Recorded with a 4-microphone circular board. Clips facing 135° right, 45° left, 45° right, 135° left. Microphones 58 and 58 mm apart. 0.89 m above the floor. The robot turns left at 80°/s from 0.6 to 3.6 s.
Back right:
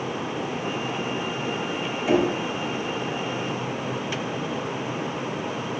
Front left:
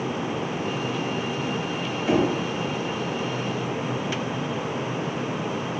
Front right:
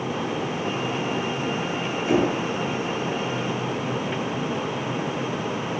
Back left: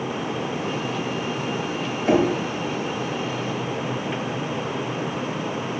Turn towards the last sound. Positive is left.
turn(degrees=20)